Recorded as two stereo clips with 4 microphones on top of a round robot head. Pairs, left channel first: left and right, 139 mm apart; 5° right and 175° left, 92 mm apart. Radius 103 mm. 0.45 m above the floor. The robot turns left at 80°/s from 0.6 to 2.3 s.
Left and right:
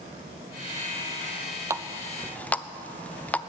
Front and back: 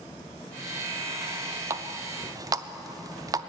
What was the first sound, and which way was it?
A running tap, 150° right.